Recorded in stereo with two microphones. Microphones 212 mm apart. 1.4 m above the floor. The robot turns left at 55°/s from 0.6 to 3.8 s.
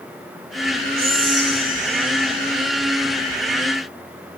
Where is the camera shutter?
No camera shutter in this recording.